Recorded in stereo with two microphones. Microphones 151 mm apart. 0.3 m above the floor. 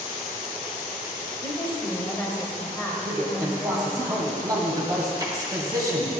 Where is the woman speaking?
15° left (ahead or behind), 1.4 m.